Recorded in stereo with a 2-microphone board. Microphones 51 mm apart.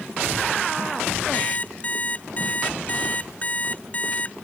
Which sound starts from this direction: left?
An alarm clock, at 1.3 s.